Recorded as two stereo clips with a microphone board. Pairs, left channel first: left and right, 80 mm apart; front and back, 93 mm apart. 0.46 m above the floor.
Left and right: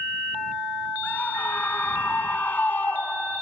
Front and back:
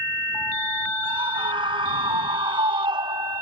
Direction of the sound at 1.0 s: 160° left.